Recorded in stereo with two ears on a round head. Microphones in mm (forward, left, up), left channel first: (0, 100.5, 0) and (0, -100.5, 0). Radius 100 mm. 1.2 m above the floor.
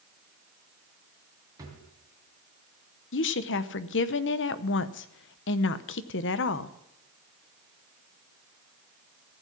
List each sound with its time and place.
1.6 s a drawer: 15° right (ahead or behind), 3 m
3.1 s a woman speaking: 55° left (ahead or behind), 0.8 m